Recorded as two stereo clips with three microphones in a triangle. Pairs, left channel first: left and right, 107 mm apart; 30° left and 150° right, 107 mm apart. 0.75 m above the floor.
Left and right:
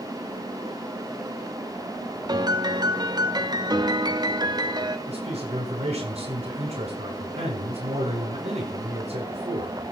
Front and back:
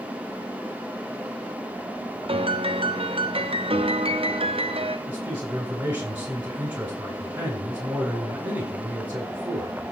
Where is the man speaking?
75° right, 7 m.